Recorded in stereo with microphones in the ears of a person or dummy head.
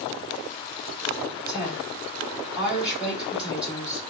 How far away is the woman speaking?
About 2 m.